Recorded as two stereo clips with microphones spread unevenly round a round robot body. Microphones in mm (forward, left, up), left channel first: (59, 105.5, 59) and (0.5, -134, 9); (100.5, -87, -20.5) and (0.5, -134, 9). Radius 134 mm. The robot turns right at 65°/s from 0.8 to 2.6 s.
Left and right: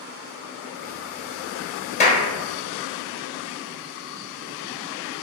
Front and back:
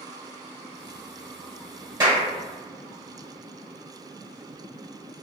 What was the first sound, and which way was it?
A clap, 135° left.